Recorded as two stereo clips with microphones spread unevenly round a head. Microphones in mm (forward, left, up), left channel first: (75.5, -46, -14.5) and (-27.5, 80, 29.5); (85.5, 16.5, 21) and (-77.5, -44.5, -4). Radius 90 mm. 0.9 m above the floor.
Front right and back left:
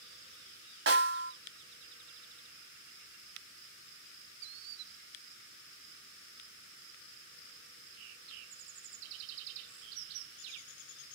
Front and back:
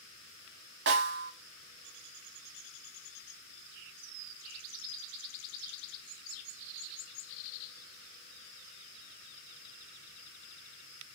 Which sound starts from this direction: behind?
A snare drum, at 0.9 s.